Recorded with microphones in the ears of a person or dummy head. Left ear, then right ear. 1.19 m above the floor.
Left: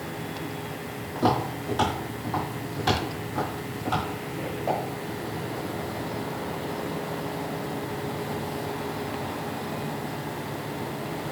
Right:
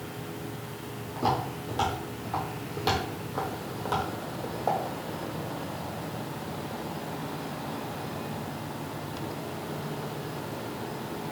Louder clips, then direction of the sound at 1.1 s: Left 3 dB; 15° left (ahead or behind).